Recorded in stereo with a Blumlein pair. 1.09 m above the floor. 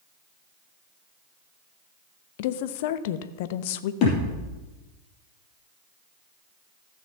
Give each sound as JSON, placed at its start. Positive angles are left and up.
{"t": 2.4, "sound": "a woman speaking", "azimuth_deg": 50, "distance_m": 0.8}
{"t": 4.0, "sound": "a thud", "azimuth_deg": 40, "distance_m": 4.5}